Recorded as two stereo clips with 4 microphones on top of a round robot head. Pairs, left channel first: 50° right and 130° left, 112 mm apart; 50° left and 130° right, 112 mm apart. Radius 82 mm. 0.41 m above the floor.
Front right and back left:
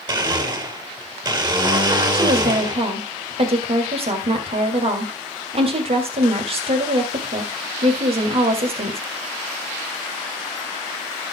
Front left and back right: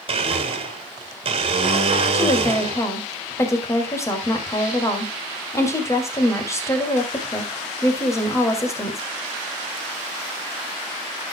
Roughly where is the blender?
Behind.